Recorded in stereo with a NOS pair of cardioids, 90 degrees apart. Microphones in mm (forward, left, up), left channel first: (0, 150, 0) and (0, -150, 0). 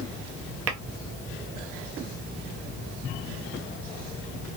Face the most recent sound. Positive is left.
turn(degrees=-50)